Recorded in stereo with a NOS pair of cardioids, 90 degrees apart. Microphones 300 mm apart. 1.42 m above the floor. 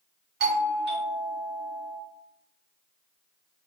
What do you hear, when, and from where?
0.4 s a doorbell: 35° right, 0.7 m